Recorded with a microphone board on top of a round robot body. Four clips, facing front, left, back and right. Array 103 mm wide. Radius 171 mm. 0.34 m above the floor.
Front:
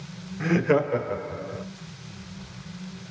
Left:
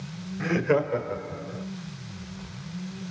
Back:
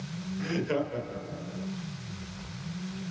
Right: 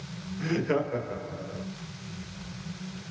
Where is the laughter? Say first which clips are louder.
Left 4 dB, front 8 dB; 35° left, 1.6 m; by 1.6 s straight ahead, 2.5 m.